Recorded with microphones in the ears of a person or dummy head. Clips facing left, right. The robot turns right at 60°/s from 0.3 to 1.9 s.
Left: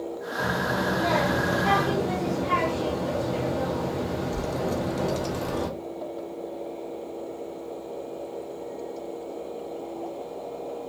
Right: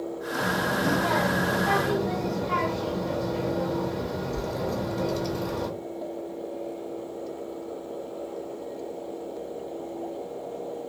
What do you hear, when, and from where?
0.4 s a child speaking: straight ahead, 0.7 m; by 5.7 s 95° left, 0.7 m